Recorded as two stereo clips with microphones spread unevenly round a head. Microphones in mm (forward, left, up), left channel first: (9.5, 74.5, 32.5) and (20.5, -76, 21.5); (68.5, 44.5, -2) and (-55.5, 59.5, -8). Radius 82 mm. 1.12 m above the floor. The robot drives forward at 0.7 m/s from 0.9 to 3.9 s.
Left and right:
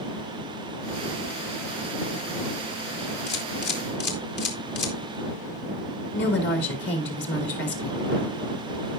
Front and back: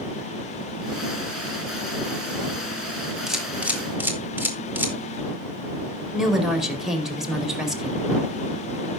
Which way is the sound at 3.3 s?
85° left.